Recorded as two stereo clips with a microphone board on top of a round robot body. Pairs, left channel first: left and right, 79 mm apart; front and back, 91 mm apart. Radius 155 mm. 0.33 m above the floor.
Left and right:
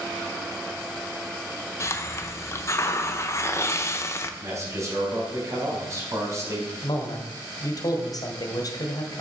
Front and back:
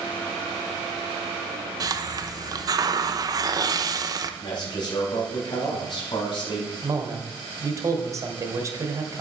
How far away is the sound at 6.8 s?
About 1.6 m.